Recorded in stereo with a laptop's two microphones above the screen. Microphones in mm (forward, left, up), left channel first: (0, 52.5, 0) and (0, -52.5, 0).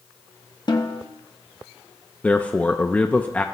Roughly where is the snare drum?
Left.